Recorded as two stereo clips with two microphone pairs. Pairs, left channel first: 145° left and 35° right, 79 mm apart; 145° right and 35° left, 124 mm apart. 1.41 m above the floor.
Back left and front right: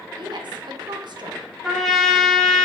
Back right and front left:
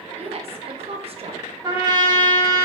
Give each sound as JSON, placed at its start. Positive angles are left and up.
{"t": 0.2, "sound": "a woman speaking", "azimuth_deg": -10, "distance_m": 0.6}
{"t": 1.6, "sound": "a trumpet", "azimuth_deg": 60, "distance_m": 1.1}